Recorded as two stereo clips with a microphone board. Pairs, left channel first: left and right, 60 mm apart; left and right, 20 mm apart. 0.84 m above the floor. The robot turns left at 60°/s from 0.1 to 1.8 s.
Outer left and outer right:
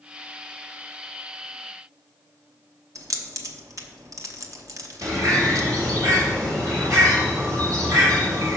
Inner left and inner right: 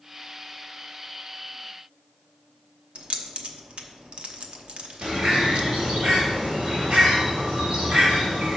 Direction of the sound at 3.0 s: 65° right (ahead or behind).